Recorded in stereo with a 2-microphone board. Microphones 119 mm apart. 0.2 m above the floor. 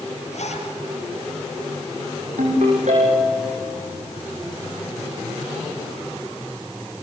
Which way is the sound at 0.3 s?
75° left (ahead or behind).